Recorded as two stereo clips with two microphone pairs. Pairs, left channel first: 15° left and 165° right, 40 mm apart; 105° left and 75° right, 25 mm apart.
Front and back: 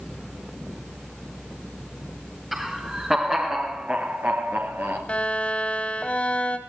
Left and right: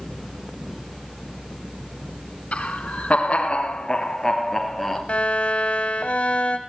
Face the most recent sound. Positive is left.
turn(degrees=75)